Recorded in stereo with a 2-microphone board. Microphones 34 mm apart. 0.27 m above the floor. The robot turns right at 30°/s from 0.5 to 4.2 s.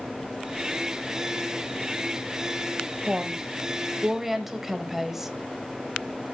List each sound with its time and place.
3.1 s a woman speaking: 15° right (ahead or behind), 0.9 m; by 5.3 s 5° right (ahead or behind), 0.9 m